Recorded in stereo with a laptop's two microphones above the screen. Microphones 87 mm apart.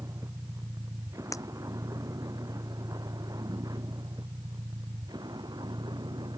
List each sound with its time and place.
0.0 s a vehicle: 35° right (ahead or behind); by 6.4 s 55° right (ahead or behind)
1.3 s breaking glass: 40° left (ahead or behind)